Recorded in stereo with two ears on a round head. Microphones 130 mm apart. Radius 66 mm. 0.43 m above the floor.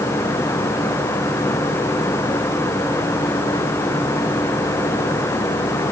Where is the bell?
I don't hear a bell.